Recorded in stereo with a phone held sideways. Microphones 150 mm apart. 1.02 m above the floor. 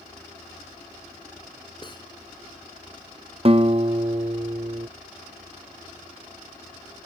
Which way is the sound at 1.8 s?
30° left (ahead or behind).